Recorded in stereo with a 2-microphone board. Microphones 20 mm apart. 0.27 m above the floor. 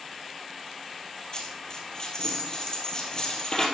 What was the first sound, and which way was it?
A dropped coin, 35° left (ahead or behind).